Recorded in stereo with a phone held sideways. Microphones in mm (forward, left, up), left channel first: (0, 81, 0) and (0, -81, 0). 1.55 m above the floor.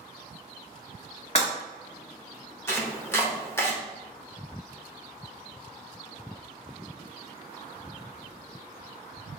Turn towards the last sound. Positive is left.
turn(degrees=15)  # may be behind; listen again after turning